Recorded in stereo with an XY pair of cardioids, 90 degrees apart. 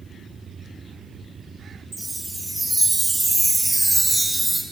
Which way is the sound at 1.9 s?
10° right.